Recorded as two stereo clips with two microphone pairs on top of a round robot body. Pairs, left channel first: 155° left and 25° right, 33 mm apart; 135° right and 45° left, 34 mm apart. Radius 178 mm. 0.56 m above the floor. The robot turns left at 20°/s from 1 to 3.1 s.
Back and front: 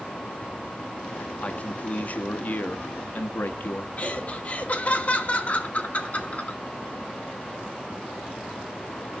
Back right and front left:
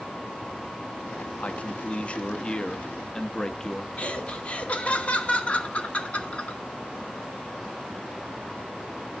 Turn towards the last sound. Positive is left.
turn(degrees=-175)